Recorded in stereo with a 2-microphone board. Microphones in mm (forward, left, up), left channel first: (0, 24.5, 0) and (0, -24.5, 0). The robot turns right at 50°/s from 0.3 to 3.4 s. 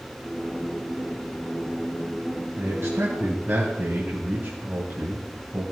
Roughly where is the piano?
I don't hear a piano.